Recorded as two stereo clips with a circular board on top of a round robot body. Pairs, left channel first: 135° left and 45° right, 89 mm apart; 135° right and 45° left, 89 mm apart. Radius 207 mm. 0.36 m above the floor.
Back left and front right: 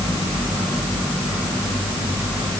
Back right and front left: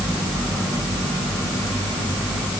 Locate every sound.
Only background noise.